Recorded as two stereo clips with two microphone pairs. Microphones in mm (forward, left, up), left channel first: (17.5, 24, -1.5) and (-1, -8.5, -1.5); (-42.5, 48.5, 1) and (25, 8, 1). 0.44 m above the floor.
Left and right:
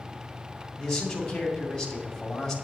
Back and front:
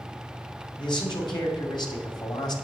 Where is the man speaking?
135° left, 2.5 m.